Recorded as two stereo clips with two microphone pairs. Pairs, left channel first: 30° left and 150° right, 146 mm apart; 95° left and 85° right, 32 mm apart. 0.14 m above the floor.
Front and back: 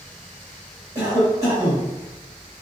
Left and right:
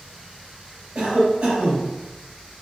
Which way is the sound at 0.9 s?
95° right.